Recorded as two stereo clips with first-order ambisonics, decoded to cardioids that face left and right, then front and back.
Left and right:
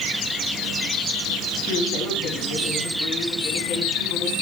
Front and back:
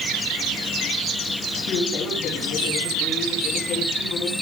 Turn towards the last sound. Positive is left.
turn(degrees=45)